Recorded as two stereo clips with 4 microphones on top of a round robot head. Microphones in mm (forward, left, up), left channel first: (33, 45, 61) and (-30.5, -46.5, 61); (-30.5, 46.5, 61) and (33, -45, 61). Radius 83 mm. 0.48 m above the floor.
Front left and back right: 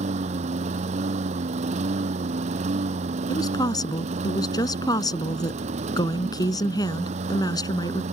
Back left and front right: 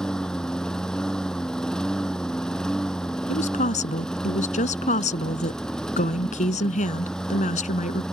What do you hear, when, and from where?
0.0 s a lawn mower: 150° right
3.3 s a woman speaking: 115° left